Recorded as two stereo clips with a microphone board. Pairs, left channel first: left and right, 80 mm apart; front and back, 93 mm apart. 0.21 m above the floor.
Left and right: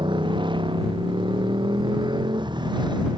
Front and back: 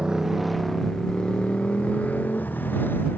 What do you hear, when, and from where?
0.0 s a motorcycle: 100° right; by 3.2 s 70° right